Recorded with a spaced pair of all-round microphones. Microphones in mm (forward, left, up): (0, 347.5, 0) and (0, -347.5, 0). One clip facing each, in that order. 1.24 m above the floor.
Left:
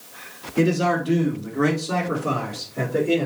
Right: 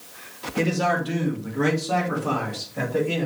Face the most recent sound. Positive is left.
turn(degrees=-25)  # may be behind; listen again after turning